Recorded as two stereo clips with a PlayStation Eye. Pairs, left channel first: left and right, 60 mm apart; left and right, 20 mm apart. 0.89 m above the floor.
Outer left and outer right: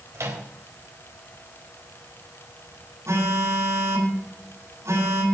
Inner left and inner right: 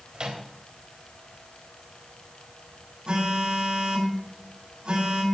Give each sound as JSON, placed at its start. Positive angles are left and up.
{"t": 0.1, "sound": "a microwave", "side_deg": -55, "distance_m": 4.0}
{"t": 3.1, "sound": "a phone buzzing", "side_deg": -55, "distance_m": 7.5}